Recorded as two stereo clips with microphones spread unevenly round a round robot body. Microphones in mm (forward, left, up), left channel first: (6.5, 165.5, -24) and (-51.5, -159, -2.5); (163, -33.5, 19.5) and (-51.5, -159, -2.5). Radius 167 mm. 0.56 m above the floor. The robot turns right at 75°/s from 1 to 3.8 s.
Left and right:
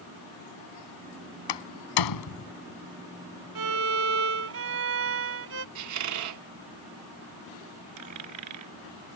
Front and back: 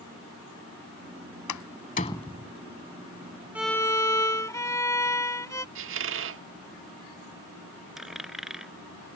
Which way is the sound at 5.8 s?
135° right.